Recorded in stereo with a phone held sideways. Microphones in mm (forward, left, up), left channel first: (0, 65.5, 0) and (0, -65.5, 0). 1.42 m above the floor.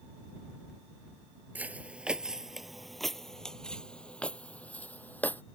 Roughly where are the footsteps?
Centre.